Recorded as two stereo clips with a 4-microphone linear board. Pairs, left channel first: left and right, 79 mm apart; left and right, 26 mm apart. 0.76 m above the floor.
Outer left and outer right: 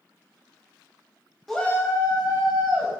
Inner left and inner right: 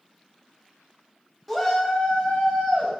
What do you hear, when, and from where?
1.5 s a shout: centre (ahead or behind), 0.7 m; by 2.9 s 65° left (ahead or behind), 1.7 m